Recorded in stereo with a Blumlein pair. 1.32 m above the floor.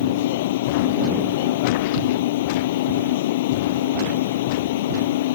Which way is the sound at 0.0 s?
55° left.